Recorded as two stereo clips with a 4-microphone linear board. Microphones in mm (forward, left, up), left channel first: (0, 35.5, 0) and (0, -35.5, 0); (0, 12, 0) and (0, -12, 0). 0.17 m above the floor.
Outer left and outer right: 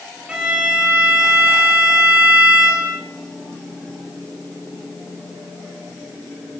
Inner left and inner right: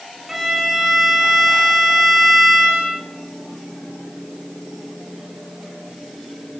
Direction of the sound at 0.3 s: 15° right (ahead or behind).